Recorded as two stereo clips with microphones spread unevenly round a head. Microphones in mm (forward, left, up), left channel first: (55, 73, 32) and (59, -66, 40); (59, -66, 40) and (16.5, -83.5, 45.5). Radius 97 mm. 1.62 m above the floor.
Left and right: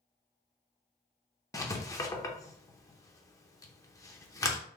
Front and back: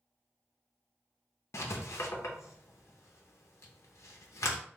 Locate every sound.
1.5 s writing: 25° left, 0.7 m